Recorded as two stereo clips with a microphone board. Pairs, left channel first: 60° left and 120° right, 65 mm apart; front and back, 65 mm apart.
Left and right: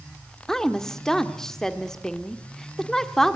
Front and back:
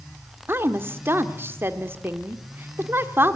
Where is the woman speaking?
140° left, 1.6 m.